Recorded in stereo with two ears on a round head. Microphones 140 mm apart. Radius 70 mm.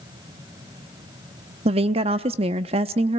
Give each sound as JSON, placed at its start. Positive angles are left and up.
{"t": 1.6, "sound": "a woman speaking", "side_deg": -40, "distance_m": 0.6}